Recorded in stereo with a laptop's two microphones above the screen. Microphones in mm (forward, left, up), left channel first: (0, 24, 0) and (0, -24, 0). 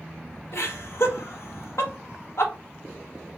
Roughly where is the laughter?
Left.